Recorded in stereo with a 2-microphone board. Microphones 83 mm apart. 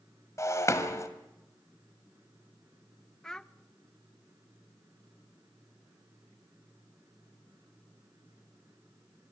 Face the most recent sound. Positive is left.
turn(degrees=5)  # may be behind; listen again after turning